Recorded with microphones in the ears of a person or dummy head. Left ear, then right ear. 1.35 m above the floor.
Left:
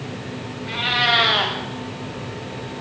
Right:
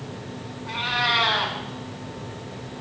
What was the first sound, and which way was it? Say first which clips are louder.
A cat meowing: left 4 dB; 15° left (ahead or behind).